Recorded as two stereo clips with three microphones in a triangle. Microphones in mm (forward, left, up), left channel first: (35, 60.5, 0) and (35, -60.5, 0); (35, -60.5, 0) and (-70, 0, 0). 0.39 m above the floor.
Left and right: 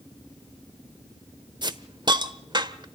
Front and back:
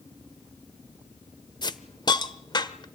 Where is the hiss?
60° right, 1.1 m.